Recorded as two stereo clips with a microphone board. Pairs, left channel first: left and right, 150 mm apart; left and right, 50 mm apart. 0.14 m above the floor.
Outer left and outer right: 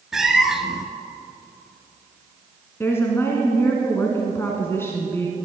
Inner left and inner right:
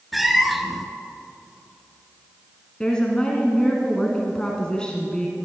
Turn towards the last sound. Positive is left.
turn(degrees=15)  # may be behind; listen again after turning